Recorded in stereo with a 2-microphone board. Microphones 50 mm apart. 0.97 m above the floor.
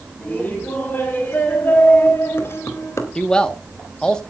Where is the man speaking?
15° left (ahead or behind), 1.6 m.